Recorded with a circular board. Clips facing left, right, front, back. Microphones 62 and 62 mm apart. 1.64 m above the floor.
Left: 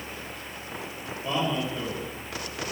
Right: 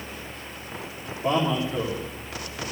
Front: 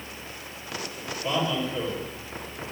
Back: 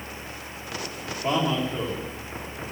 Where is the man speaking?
120° right, 4 m.